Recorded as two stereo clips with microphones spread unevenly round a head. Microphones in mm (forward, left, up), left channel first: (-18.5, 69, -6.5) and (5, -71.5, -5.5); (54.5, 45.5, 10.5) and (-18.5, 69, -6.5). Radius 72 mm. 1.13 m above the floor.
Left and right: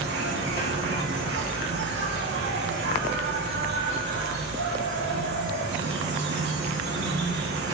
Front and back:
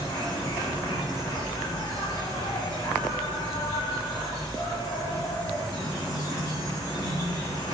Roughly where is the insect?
Right.